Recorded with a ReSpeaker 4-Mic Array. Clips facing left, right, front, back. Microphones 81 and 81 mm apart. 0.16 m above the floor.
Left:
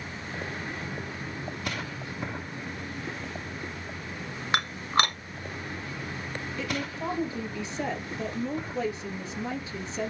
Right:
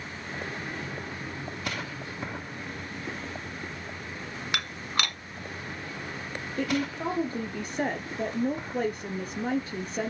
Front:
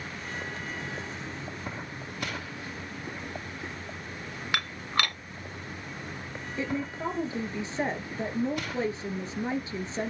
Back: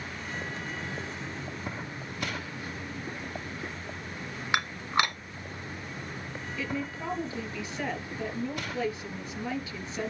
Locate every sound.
4.5 s dishes clattering: 125° left, 1.2 m
6.6 s a woman speaking: 55° right, 2.5 m